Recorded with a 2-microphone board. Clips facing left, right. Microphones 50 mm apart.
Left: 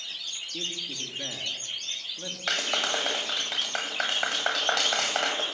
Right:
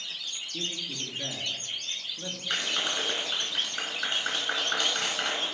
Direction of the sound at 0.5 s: 10° left (ahead or behind).